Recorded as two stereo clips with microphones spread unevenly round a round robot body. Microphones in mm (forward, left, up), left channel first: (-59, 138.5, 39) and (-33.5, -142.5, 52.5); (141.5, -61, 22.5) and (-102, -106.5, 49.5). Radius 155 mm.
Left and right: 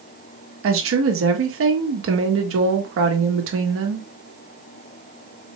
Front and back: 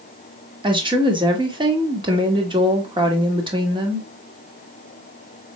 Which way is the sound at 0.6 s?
100° right.